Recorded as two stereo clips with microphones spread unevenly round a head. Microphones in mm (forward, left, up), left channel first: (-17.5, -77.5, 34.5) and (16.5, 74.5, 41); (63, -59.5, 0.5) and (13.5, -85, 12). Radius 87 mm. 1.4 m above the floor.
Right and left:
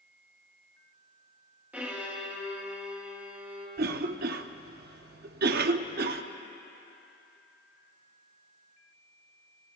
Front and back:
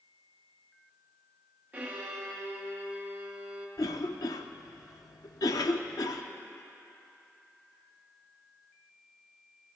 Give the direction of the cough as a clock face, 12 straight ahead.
10 o'clock.